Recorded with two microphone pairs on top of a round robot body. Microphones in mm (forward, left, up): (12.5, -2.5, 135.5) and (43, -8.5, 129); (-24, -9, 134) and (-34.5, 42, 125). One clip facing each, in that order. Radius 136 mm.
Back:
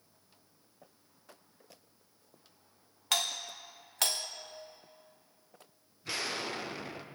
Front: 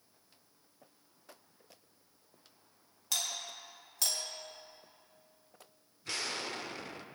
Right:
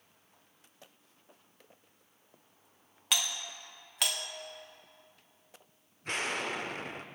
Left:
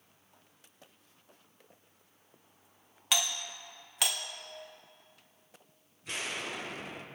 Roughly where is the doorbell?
Behind.